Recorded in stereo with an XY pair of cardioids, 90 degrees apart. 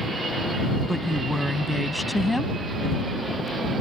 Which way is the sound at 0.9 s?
10° left.